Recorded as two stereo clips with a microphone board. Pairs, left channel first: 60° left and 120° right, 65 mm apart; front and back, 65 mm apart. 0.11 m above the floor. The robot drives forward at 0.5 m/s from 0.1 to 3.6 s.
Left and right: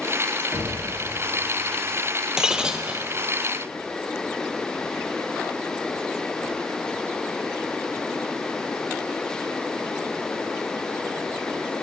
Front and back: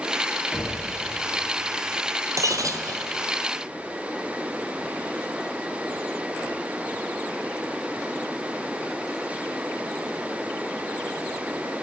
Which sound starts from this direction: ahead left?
Knocking, at 0.5 s.